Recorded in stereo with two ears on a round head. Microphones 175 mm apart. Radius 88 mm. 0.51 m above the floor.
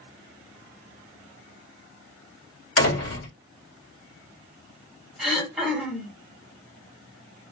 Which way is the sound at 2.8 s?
60° left (ahead or behind).